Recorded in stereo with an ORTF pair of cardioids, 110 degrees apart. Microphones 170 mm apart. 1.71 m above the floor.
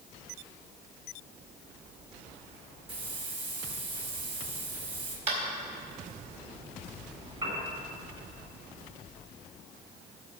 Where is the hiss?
30° right, 3 m.